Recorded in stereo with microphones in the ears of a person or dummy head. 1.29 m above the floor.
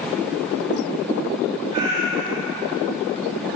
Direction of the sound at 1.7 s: 30° right (ahead or behind).